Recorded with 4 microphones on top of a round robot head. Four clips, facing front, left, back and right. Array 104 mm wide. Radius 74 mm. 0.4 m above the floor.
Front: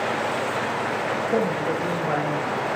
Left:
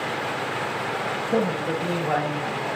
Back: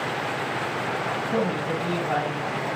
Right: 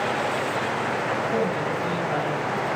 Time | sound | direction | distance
1.3 | a man speaking | 35° left | 3 m